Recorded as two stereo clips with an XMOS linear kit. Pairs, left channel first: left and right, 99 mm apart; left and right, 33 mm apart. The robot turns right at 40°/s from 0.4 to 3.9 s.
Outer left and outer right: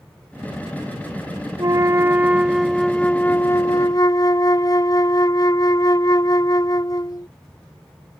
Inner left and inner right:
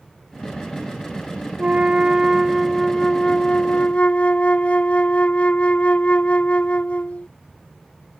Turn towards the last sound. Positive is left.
turn(degrees=45)